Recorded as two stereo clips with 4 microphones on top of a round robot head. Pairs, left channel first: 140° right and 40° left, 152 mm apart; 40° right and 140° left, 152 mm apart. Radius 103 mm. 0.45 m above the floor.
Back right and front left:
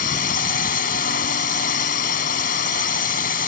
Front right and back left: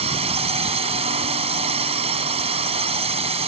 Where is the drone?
170° right.